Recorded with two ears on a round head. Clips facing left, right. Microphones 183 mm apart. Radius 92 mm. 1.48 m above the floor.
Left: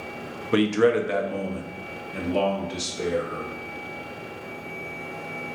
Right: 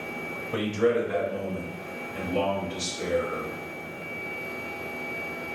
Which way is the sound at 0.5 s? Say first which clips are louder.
Left 5 dB; 80° left.